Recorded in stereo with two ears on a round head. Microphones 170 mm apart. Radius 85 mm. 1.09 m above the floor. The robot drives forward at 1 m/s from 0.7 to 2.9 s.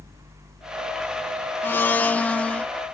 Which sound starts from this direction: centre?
A blender, at 1.6 s.